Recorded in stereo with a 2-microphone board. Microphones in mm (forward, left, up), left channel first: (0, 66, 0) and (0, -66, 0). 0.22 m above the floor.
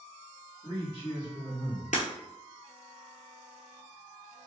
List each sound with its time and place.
0.6 s a man speaking: 35° left (ahead or behind), 1.4 m; by 1.8 s 45° left (ahead or behind), 1.7 m
1.9 s breaking glass: 70° left (ahead or behind), 0.6 m